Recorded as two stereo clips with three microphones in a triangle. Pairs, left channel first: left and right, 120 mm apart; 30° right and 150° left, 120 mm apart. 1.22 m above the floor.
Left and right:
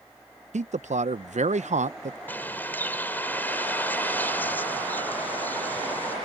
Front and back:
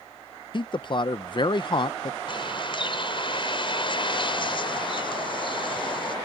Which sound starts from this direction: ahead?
A bird, at 2.3 s.